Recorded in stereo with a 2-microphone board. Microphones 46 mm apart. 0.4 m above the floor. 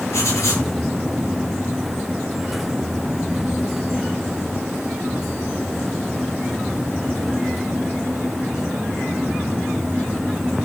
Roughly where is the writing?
Left.